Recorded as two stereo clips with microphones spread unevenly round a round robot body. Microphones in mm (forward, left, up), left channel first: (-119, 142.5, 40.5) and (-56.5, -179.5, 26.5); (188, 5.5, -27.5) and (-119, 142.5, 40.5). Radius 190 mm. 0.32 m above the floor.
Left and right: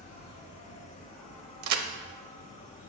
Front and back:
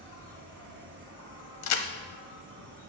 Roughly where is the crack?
Ahead right.